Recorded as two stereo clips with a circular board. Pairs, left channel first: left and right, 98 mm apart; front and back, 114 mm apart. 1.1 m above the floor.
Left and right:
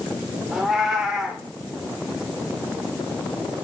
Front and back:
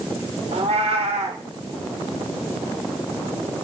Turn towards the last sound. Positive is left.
turn(degrees=-175)